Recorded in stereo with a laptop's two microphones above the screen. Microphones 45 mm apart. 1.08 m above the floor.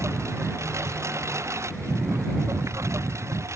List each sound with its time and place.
0.0 s a lawn mower: 80° right; by 3.6 s 85° right